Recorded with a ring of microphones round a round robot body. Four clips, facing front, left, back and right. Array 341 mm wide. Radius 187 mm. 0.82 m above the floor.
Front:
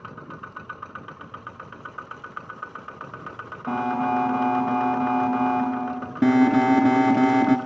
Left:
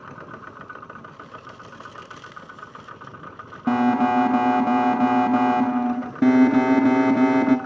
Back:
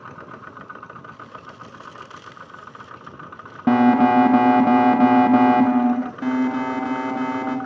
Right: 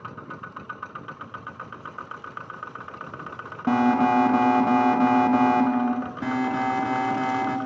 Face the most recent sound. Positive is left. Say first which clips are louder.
# left 11 dB, front 7 dB
turn(degrees=45)